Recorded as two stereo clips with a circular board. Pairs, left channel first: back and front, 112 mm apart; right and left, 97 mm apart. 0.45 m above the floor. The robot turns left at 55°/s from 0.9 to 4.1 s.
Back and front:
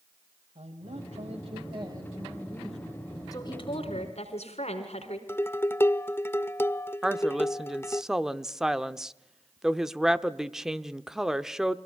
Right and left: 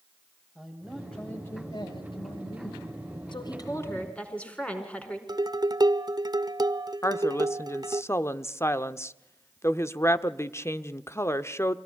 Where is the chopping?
No chopping in this recording.